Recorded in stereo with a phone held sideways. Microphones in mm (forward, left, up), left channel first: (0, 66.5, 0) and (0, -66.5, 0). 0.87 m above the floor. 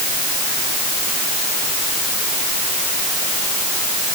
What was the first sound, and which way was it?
Only background noise.